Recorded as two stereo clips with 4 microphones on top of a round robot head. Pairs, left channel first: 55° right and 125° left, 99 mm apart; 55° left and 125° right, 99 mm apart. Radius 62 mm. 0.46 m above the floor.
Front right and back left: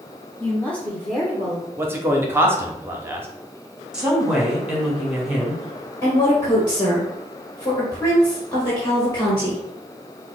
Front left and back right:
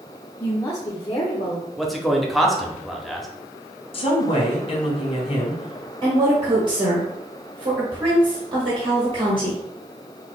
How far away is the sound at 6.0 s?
About 1.9 m.